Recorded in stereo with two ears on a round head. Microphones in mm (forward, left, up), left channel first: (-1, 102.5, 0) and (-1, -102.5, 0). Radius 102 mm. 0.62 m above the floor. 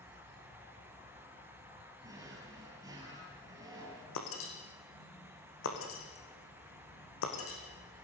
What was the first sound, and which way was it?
An insect, 45° left (ahead or behind).